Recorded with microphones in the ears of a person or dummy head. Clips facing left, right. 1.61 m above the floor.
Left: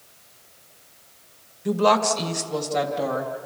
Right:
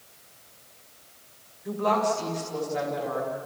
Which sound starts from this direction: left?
A woman speaking, at 1.6 s.